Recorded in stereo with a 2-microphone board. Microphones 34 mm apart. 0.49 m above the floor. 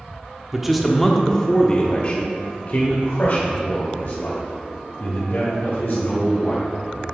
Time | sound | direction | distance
0.5 | a man speaking | 10° right (ahead or behind) | 0.8 m